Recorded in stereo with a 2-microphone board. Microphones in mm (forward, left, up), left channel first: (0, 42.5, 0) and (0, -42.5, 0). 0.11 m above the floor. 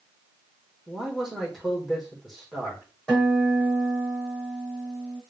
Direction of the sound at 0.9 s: Centre (ahead or behind).